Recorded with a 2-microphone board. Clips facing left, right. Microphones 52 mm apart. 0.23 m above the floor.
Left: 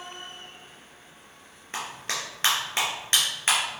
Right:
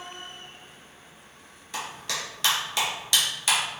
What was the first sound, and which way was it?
A clap, 40° left (ahead or behind).